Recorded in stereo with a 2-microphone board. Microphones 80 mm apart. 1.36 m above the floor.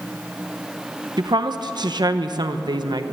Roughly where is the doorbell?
No doorbell in this recording.